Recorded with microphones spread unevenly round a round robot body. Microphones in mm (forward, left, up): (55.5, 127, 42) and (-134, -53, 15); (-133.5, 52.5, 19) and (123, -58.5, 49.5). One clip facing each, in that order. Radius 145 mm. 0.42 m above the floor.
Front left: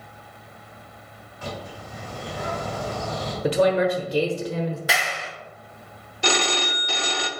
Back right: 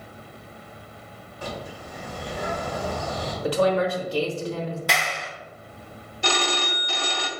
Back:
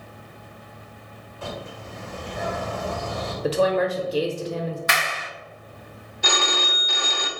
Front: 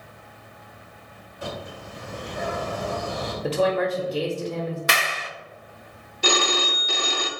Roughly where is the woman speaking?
Left.